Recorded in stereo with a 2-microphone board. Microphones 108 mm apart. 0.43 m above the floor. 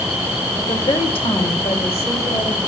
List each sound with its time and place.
0.6 s a woman speaking: 50° left (ahead or behind), 1.5 m; by 2.6 s 60° left (ahead or behind), 2.5 m